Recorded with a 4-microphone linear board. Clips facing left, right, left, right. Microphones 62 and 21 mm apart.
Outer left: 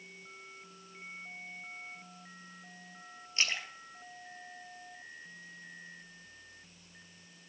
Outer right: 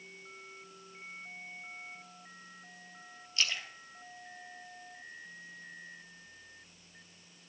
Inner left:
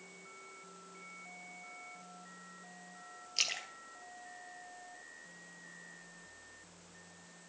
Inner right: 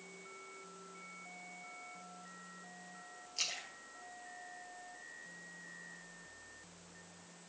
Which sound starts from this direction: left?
A splash, at 3.4 s.